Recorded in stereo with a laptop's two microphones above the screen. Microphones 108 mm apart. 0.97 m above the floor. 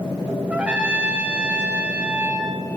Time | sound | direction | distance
0.5 | a trumpet | 10° right (ahead or behind) | 1.0 m